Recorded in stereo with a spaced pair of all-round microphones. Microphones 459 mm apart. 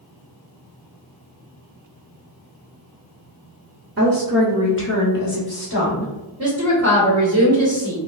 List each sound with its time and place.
4.0 s a woman speaking: 35° right (ahead or behind), 0.7 m; by 6.1 s 65° left (ahead or behind), 1.5 m
6.4 s a woman speaking: 30° right (ahead or behind), 1.5 m